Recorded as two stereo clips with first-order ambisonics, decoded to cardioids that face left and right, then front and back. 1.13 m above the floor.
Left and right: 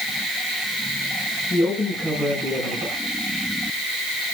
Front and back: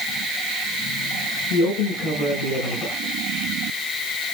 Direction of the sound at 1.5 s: 10° left.